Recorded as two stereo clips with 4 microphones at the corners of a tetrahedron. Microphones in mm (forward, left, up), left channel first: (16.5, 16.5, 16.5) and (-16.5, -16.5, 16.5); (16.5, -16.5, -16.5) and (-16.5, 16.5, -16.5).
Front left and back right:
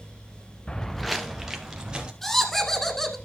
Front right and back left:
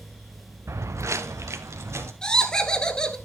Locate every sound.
0.7 s footsteps: 115° left, 0.8 m; by 2.1 s 155° left, 2.5 m
2.2 s laughter: 25° right, 1.2 m